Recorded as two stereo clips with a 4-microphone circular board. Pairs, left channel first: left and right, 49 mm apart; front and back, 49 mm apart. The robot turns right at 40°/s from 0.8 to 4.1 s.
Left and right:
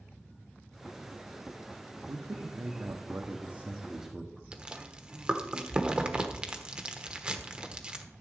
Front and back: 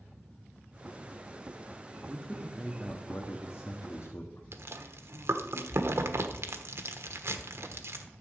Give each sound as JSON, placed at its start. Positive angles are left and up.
{"t": 2.1, "sound": "a man speaking", "azimuth_deg": -95, "distance_m": 1.2}
{"t": 4.5, "sound": "chewing", "azimuth_deg": -160, "distance_m": 1.1}